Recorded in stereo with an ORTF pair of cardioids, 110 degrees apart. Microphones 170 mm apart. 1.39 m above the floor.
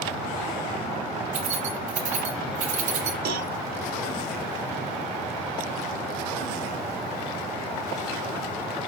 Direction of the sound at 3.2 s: 70° right.